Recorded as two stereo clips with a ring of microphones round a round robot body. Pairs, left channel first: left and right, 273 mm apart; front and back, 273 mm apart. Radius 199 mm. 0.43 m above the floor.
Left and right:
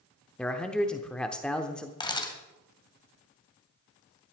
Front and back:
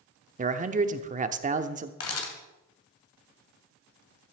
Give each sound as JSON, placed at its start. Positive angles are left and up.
{"t": 0.4, "sound": "a man speaking", "azimuth_deg": 175, "distance_m": 0.8}
{"t": 2.0, "sound": "a camera shutter", "azimuth_deg": 20, "distance_m": 2.5}